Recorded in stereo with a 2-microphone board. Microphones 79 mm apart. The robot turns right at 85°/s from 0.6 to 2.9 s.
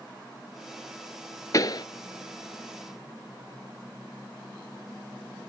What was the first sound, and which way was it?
A pop, 45° left (ahead or behind).